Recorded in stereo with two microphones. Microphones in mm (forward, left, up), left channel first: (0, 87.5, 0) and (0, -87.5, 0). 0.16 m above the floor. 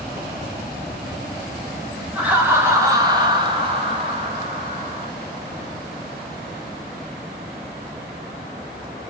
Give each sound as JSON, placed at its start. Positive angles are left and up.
{"t": 2.1, "sound": "laughter", "side_deg": -10, "distance_m": 1.4}